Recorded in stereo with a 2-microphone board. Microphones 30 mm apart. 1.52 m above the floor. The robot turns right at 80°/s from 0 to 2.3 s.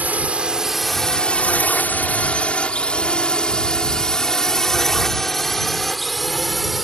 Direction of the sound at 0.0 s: 80° right.